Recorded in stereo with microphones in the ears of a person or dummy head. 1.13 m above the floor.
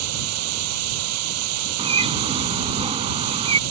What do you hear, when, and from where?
0.0 s running water: 80° right
1.8 s a bird: 30° right (ahead or behind)